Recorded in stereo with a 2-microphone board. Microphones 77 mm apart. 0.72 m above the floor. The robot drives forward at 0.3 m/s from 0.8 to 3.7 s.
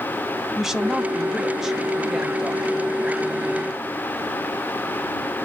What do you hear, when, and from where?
0.6 s a woman speaking: 5° right (ahead or behind), 0.6 m